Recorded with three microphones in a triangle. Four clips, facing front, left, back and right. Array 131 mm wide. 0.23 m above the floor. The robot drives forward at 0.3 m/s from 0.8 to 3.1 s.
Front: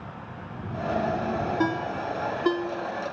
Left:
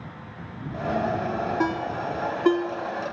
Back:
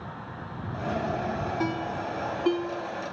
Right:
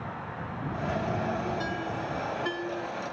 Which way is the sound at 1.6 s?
60° left.